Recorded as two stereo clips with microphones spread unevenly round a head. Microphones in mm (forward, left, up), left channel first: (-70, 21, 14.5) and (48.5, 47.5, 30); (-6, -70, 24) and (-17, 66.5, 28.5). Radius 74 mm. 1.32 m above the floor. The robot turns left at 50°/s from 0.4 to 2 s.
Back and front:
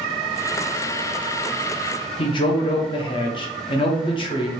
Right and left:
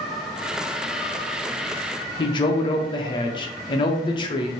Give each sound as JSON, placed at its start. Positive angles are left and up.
{"t": 2.2, "sound": "a man speaking", "azimuth_deg": -135, "distance_m": 0.6}